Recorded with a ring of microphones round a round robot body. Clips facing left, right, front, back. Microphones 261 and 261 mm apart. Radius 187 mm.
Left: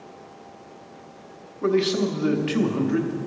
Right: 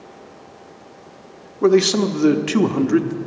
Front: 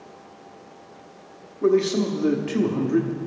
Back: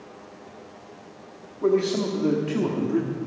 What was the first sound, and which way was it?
A man speaking, 70° right.